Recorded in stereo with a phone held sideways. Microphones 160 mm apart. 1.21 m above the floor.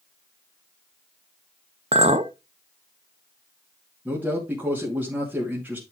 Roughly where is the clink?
Right.